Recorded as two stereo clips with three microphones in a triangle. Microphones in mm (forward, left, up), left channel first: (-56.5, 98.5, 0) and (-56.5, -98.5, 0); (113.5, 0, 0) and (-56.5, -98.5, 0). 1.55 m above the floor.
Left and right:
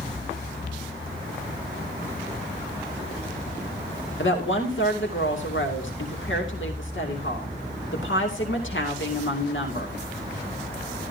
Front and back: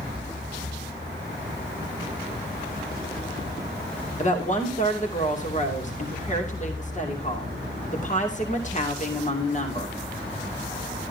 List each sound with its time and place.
4.2 s a woman speaking: 80° left, 2.5 m